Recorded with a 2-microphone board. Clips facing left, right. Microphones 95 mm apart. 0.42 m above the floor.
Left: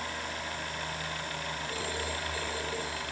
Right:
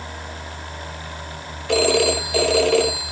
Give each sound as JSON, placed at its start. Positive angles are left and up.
{"t": 1.7, "sound": "a phone ringing", "side_deg": -85}